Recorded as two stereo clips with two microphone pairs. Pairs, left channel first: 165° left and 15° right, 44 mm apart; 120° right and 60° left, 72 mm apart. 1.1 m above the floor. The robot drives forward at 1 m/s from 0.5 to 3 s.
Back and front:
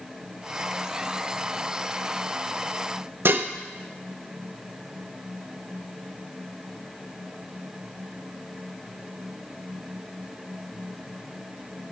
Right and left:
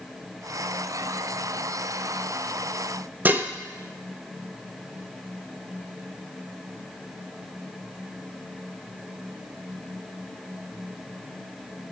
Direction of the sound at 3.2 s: Straight ahead.